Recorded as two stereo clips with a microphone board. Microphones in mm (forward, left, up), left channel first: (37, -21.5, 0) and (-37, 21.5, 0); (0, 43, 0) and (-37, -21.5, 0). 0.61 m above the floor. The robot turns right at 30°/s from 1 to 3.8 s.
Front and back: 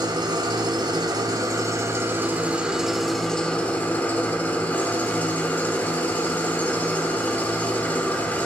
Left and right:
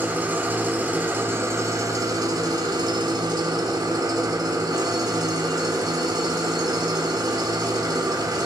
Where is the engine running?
175° left, 1.3 m; by 8.5 s 100° right, 1.3 m.